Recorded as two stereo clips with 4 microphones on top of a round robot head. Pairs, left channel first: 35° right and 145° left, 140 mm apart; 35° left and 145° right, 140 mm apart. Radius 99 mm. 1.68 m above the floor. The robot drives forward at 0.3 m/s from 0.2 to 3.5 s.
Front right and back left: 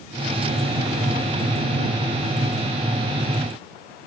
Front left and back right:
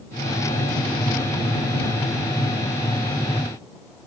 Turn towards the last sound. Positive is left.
No sound to turn to.